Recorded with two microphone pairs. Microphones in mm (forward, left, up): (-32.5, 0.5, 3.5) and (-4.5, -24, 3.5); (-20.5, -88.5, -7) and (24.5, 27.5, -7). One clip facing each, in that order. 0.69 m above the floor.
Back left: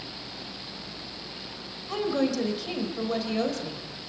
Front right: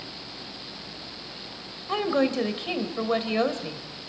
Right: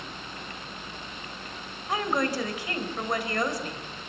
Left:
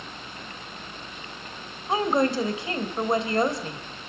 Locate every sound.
1.9 s a woman speaking: 5° left, 2.5 m